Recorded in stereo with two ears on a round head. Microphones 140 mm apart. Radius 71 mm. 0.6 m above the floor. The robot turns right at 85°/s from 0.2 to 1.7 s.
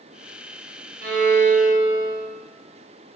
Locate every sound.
1.0 s a violin: 95° right, 2.5 m; by 2.2 s 40° right, 2.5 m